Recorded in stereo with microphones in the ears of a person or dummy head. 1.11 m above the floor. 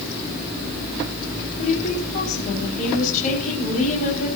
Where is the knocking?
No knocking in this recording.